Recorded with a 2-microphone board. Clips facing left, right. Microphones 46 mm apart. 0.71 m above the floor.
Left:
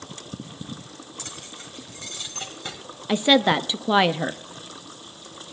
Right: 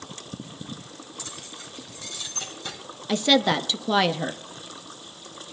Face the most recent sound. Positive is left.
turn(degrees=25)  # may be behind; listen again after turning